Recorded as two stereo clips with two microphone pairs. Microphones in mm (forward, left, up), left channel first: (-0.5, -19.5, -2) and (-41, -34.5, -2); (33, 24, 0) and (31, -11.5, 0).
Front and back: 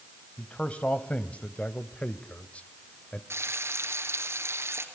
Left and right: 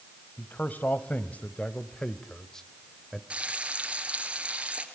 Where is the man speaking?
75° left, 1.8 m; by 3.2 s 10° right, 1.1 m.